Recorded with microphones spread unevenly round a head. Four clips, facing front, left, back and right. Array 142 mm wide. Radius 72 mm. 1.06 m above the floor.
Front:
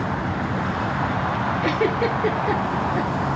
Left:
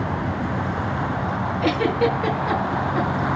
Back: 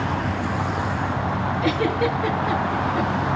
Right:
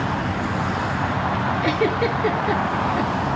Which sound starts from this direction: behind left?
A giggle, at 1.6 s.